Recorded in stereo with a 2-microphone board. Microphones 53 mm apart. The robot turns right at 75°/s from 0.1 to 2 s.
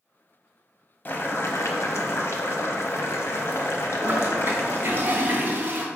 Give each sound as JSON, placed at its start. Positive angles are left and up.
{"t": 1.1, "sound": "boiling", "azimuth_deg": 40, "distance_m": 0.6}
{"t": 4.0, "sound": "a toilet flushing", "side_deg": -45, "distance_m": 0.9}